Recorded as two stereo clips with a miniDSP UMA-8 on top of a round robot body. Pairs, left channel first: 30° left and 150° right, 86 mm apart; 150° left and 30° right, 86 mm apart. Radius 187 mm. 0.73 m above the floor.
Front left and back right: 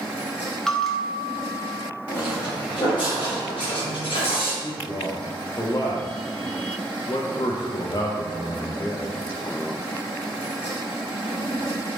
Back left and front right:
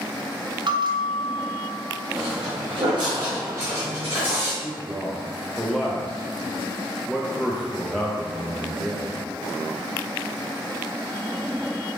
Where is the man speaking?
60° left, 0.7 m.